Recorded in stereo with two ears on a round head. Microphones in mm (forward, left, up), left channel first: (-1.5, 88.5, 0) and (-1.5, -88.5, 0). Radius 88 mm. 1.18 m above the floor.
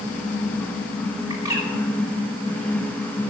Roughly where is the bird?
Centre.